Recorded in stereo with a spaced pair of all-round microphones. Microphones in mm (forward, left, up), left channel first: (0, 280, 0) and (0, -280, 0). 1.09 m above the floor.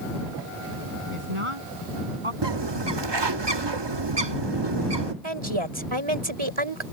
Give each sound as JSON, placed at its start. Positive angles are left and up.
{"t": 1.1, "sound": "a woman speaking", "side_deg": -65}
{"t": 2.4, "sound": "a bird", "side_deg": -50}
{"t": 5.2, "sound": "a woman speaking", "side_deg": -60}